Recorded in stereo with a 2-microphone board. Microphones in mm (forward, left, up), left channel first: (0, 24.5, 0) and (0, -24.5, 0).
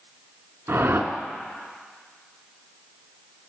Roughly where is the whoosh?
Right.